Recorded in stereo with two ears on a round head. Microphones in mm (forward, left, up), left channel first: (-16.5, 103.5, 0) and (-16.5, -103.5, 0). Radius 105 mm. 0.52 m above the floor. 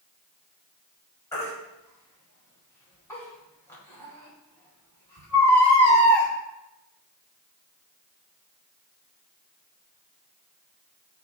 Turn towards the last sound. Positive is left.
turn(degrees=10)  # may be behind; listen again after turning